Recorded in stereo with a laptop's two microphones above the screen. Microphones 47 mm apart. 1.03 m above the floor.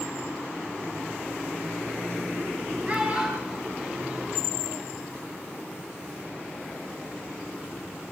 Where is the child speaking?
30° right (ahead or behind), 5 m; by 4.8 s 15° right (ahead or behind), 5.5 m.